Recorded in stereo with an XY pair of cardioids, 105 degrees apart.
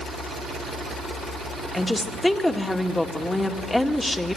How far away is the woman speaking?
About 2 m.